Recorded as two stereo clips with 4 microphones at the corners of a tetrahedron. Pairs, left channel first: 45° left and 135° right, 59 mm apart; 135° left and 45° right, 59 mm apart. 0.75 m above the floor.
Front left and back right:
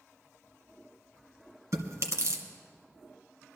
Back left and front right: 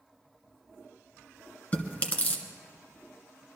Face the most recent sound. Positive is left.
turn(degrees=-165)